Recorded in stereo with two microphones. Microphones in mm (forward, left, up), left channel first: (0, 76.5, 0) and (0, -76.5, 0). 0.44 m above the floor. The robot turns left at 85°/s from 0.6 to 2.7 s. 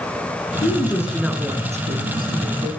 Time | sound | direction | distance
0.6 | a woman speaking | 50° left | 6.5 m